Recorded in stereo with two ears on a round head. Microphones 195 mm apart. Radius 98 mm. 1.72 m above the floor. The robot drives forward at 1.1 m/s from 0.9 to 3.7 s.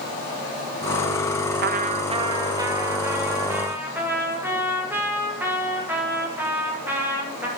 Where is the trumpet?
50° right (ahead or behind), 0.6 m; by 7.5 s 10° right (ahead or behind), 2.5 m.